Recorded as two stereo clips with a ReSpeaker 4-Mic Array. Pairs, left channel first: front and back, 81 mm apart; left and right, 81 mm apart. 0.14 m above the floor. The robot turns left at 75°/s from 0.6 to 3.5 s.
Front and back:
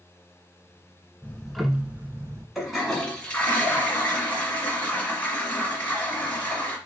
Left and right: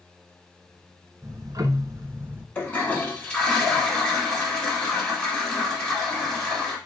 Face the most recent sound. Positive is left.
turn(degrees=30)